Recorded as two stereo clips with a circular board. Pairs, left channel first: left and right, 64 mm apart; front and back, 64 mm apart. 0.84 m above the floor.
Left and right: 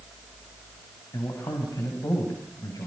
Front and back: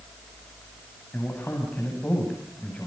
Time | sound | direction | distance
1.1 | a man speaking | 65° left | 6.5 m